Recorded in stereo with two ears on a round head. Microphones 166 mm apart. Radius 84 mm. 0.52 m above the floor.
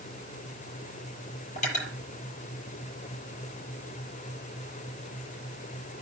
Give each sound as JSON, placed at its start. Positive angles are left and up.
{"t": 1.6, "sound": "cutlery clinking", "side_deg": 45, "distance_m": 7.5}